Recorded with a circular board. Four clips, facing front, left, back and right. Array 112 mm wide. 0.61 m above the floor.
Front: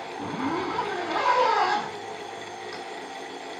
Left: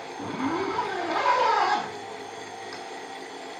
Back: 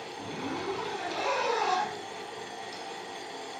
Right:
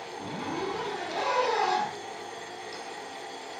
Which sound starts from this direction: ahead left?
A zipper, at 0.2 s.